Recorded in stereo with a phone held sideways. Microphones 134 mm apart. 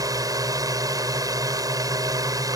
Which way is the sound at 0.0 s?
25° right (ahead or behind).